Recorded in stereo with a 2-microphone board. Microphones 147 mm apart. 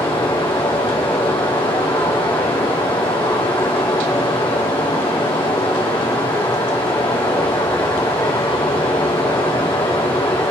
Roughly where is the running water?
Left.